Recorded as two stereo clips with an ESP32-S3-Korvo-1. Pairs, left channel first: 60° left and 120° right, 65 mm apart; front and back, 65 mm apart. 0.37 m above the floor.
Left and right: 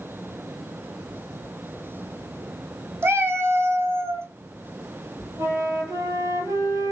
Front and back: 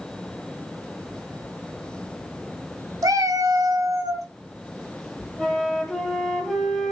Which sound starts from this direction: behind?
A cat meowing, at 3.0 s.